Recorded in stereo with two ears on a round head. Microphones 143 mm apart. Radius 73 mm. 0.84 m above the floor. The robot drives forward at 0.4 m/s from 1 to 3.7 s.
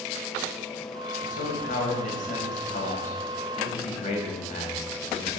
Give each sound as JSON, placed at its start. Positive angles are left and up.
{"t": 1.2, "sound": "a man speaking", "side_deg": 60, "distance_m": 4.5}